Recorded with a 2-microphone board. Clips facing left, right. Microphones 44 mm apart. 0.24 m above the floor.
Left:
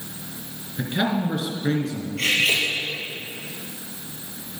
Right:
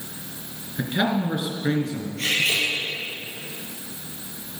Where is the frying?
No frying in this recording.